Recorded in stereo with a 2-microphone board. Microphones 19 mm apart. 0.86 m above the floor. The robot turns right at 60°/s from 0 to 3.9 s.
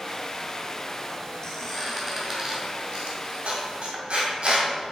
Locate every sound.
1.4 s a squeak: 25° left (ahead or behind), 2 m; by 4.7 s 55° right (ahead or behind), 2 m